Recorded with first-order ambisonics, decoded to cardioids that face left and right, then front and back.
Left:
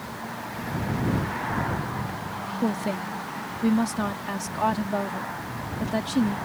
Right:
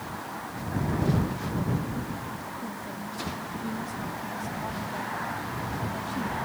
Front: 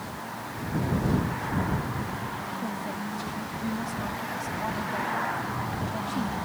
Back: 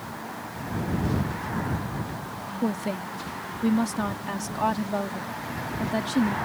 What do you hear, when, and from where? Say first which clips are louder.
2.6 s a woman speaking: left 8 dB, back 3 dB; 125° left